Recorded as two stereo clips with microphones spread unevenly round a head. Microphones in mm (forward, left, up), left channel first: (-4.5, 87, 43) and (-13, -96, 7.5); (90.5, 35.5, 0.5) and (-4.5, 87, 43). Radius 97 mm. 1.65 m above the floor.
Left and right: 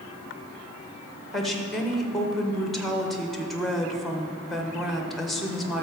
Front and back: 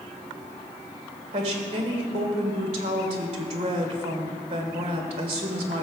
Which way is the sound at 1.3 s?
175° left.